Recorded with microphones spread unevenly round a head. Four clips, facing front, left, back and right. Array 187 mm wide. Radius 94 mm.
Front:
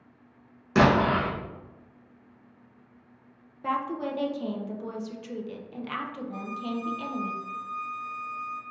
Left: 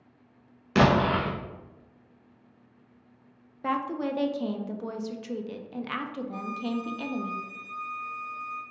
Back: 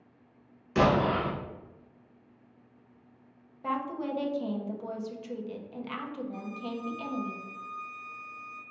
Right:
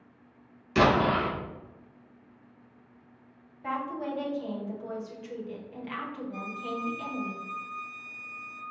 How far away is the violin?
About 1.3 m.